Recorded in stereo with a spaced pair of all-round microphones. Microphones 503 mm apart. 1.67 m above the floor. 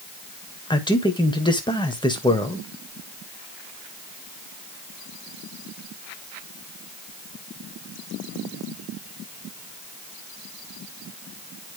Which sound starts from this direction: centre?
A man speaking, at 0.7 s.